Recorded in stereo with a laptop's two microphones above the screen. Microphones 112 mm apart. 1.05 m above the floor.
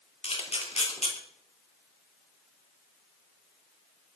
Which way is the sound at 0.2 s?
65° left (ahead or behind).